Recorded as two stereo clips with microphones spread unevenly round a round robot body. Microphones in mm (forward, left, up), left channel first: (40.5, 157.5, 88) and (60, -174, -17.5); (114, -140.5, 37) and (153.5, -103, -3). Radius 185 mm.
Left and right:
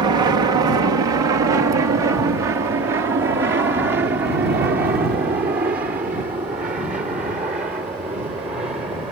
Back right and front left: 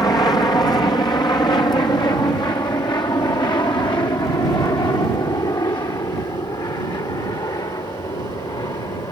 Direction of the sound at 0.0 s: 125° right.